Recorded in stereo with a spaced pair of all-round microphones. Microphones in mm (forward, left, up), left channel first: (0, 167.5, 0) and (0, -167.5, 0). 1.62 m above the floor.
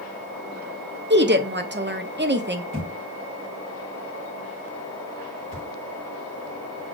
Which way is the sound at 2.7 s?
35° right (ahead or behind).